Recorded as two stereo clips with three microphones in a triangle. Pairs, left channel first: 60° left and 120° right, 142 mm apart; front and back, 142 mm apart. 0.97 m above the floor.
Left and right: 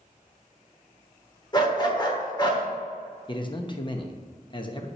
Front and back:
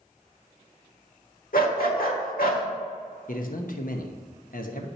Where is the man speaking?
5° left, 0.9 m.